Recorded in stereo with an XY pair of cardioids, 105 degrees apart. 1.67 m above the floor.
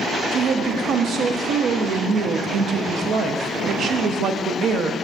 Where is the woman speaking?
65° right, 0.6 m.